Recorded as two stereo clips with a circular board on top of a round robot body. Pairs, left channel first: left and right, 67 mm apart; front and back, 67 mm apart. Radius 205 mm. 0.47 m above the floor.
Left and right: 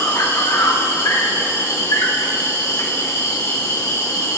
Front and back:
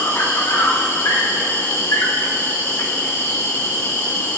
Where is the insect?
50° left, 3 m.